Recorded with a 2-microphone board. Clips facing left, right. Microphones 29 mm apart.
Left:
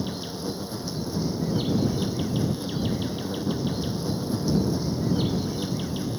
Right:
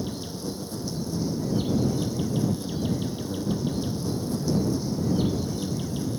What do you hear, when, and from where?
0.0 s an insect: 20° left (ahead or behind)